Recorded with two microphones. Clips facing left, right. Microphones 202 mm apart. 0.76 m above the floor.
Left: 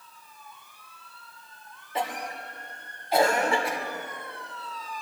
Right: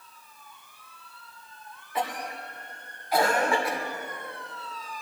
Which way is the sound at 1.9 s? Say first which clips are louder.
Even; 25° left (ahead or behind).